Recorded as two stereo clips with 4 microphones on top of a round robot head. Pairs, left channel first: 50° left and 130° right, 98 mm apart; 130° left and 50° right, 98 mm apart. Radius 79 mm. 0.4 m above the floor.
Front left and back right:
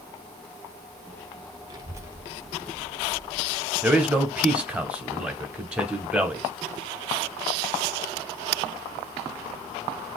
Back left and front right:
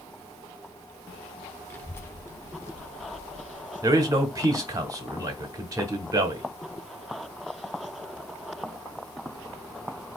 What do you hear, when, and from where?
1.7 s a child speaking: 165° right, 0.9 m; by 3.7 s 60° left, 1.0 m
3.8 s a man speaking: 60° right, 1.0 m